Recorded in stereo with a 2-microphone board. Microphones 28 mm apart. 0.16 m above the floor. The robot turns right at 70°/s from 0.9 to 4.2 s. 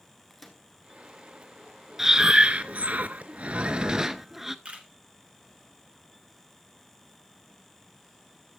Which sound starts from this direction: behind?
Breathing, at 2.0 s.